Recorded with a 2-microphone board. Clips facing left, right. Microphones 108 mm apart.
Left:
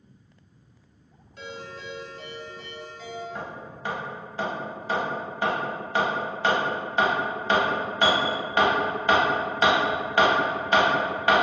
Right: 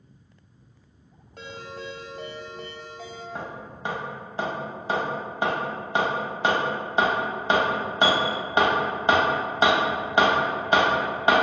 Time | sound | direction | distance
1.4 | a ringtone | 50° right (ahead or behind) | 0.5 m
3.4 | hammering | 20° right (ahead or behind) | 0.6 m